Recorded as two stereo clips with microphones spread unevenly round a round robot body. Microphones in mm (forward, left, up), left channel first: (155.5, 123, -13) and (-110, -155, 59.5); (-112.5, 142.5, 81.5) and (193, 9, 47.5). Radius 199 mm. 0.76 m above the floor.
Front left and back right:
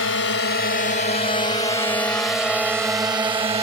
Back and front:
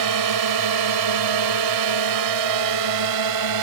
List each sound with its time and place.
0.0 s a drone: 10° right; by 3.6 s 55° right